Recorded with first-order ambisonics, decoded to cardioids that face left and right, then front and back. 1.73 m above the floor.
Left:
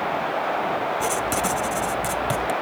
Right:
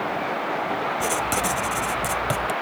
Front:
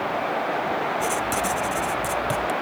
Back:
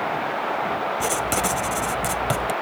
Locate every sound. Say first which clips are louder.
1.0 s writing: even, back 1 dB; 165° right